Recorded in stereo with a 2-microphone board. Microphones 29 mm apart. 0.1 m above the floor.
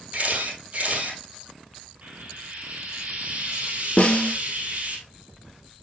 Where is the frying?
60° right (ahead or behind), 2.5 m.